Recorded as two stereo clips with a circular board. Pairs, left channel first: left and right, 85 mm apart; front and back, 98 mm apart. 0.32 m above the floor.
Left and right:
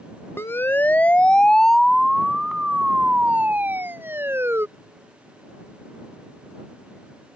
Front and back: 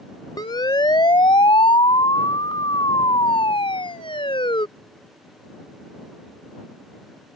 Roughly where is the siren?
Ahead left.